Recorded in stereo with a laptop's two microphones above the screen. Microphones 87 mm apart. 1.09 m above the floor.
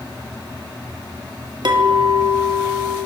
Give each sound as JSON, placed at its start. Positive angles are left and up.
{"t": 1.6, "sound": "a clink", "side_deg": -55, "distance_m": 0.7}